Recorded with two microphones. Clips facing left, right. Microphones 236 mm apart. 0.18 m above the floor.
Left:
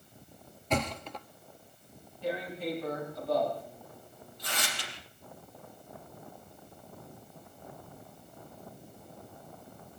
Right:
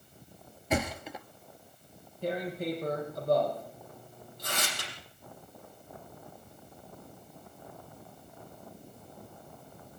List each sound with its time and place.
0.7 s a thud: 10° right (ahead or behind), 0.9 m
2.2 s tearing paper: 45° right (ahead or behind), 6 m